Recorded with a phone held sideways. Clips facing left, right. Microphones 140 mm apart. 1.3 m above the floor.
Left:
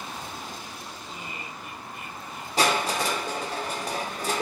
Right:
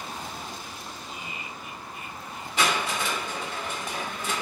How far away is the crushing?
About 2.5 m.